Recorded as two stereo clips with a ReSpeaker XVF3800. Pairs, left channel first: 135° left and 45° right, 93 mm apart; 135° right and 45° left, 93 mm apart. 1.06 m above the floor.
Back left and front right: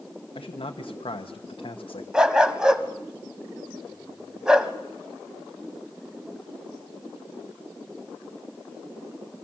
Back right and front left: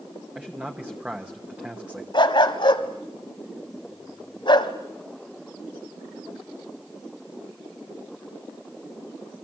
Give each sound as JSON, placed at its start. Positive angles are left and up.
{"t": 0.3, "sound": "a man speaking", "azimuth_deg": 120, "distance_m": 1.1}
{"t": 2.1, "sound": "a dog barking", "azimuth_deg": -125, "distance_m": 1.5}